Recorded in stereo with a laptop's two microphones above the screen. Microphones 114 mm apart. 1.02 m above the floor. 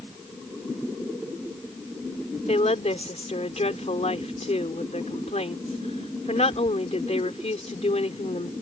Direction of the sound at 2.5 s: 75° left (ahead or behind).